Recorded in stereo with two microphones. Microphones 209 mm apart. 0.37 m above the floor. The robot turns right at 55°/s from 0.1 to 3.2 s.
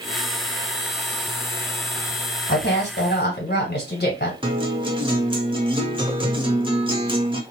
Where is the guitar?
25° right (ahead or behind), 0.8 m.